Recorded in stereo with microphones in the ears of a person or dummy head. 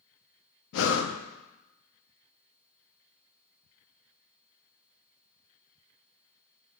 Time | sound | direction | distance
0.7 | breathing | 75° left (ahead or behind) | 0.7 m